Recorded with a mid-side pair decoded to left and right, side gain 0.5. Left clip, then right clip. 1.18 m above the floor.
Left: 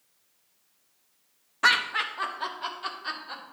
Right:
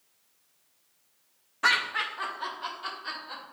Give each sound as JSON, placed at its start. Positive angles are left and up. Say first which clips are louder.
{"t": 1.6, "sound": "laughter", "louder": "left 2 dB", "azimuth_deg": 25, "distance_m": 1.4}